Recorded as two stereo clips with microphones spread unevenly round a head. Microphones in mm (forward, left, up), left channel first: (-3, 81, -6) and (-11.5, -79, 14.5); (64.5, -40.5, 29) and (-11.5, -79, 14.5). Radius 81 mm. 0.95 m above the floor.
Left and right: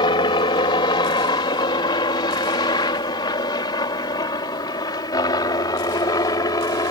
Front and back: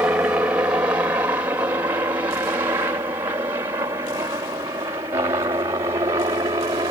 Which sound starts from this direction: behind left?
A helicopter, at 0.0 s.